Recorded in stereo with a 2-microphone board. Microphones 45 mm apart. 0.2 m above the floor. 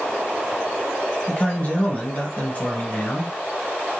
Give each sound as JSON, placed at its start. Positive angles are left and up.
{"t": 1.3, "sound": "a man speaking", "side_deg": 35, "distance_m": 1.3}